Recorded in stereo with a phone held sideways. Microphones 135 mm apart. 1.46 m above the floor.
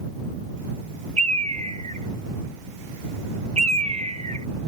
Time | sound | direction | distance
1.2 | a bird | 55° right (ahead or behind) | ?